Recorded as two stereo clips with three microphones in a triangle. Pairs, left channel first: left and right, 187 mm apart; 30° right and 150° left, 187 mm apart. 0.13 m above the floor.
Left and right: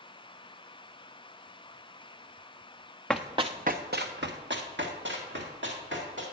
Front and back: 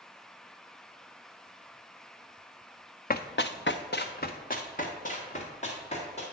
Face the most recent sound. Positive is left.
turn(degrees=-85)